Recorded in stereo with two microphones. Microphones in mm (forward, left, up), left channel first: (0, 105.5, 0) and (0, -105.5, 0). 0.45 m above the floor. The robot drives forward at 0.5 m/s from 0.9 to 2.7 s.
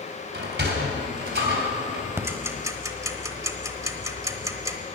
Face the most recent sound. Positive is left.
turn(degrees=-15)  # may be behind; listen again after turning